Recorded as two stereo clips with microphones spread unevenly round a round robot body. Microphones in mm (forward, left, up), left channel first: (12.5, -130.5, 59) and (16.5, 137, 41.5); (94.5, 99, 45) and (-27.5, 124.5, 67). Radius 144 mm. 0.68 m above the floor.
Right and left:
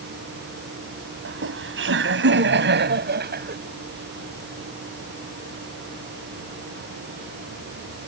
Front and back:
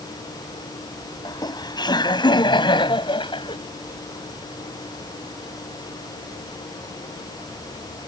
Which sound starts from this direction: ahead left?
Laughter, at 1.2 s.